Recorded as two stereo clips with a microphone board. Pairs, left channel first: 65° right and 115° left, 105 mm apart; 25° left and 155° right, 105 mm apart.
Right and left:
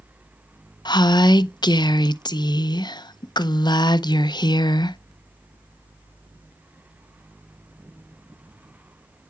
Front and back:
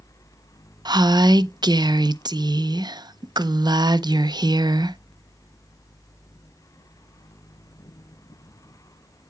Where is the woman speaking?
110° right, 0.5 m.